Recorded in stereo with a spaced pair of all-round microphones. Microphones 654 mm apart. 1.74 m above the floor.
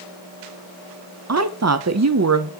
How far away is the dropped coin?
I don't hear a dropped coin.